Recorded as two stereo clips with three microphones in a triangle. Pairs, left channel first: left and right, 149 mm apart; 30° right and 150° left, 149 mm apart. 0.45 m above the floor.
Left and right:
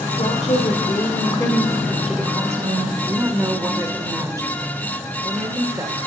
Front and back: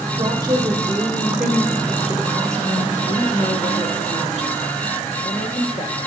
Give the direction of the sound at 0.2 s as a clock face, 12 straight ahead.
9 o'clock.